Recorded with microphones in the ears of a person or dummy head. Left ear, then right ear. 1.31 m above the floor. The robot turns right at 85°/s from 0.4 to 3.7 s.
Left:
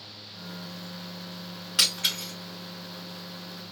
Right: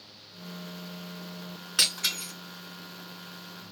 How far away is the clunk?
I don't hear a clunk.